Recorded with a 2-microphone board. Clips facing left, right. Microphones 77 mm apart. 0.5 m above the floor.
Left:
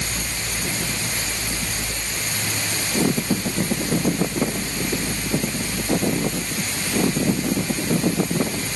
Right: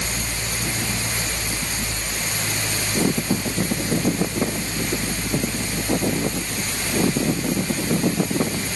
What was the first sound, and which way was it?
Only background noise.